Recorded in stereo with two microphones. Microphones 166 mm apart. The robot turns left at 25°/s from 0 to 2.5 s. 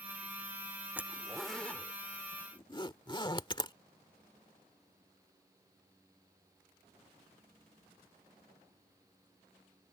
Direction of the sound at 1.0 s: 10° right (ahead or behind).